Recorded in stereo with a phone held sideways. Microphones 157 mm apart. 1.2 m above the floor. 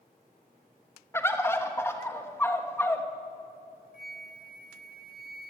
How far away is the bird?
About 1.2 m.